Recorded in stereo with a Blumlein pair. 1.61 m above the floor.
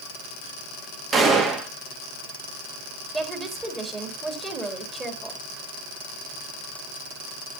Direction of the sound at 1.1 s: 20° right.